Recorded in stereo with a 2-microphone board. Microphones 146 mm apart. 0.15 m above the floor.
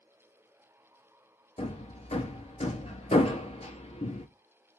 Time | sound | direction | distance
1.6 | hammering | 45° left (ahead or behind) | 0.8 m